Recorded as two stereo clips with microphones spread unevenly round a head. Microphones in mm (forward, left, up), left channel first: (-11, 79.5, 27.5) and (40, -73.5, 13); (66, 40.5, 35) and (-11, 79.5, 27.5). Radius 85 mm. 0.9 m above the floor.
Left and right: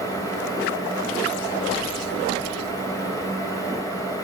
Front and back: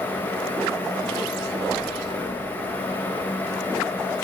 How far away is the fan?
About 1.3 m.